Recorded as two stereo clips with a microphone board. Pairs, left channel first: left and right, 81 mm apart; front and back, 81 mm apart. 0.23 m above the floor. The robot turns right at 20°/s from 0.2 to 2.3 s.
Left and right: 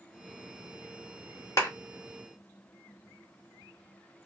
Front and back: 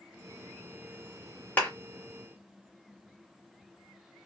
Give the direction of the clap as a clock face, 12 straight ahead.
10 o'clock.